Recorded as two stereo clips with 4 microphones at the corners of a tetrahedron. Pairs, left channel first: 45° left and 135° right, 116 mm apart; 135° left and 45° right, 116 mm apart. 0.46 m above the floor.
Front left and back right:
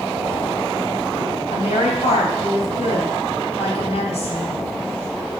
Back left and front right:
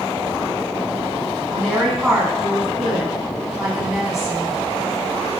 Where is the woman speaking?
40° left, 3 m.